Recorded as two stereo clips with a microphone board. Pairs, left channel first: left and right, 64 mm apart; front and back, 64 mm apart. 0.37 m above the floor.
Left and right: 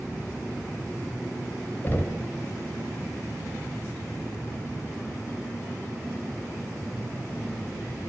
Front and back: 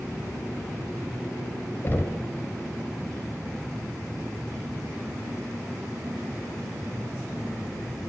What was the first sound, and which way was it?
Knocking, 45° left.